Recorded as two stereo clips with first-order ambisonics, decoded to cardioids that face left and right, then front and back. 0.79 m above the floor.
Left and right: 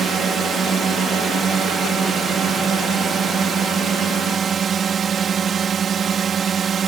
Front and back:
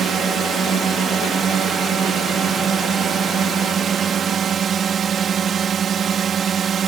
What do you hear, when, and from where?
0.0 s a drone: 135° right